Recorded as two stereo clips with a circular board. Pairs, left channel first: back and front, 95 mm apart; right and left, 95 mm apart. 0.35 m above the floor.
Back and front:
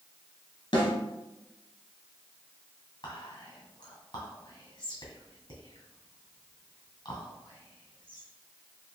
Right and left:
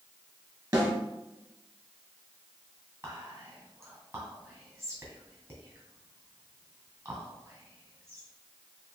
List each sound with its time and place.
0.7 s a snare drum: 145° left, 2 m
3.0 s whispering: 150° left, 2 m